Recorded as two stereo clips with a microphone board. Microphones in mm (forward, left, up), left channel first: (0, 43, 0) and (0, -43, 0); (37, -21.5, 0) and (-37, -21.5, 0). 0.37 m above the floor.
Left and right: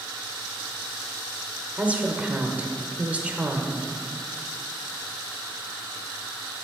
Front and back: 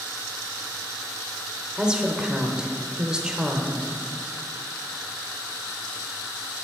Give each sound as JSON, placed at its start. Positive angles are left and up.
{"t": 1.8, "sound": "a woman speaking", "azimuth_deg": -120, "distance_m": 0.9}